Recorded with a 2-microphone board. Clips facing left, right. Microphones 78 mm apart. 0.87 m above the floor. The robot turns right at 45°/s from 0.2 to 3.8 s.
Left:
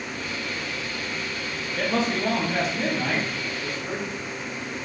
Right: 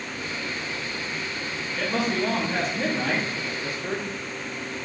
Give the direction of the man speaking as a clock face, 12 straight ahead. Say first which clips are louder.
Left 1 dB; 8 o'clock.